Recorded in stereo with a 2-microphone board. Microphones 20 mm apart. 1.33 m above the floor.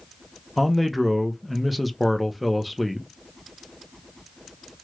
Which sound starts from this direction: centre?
A man speaking, at 0.6 s.